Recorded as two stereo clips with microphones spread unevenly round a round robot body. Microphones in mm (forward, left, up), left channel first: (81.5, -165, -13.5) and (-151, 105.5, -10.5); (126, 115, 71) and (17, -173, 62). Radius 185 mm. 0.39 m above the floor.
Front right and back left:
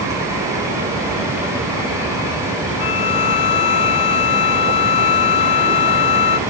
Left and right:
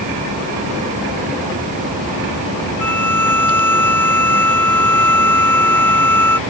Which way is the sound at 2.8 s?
15° right.